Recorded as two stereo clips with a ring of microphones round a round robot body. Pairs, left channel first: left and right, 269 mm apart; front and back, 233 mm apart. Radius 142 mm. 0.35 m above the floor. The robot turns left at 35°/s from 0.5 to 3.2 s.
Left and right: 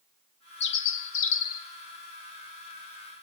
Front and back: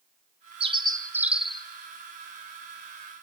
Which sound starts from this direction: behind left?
A bird, at 0.6 s.